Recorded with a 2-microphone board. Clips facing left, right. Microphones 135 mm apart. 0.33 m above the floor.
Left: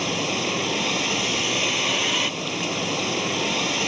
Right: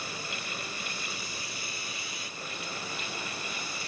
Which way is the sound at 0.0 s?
80° left.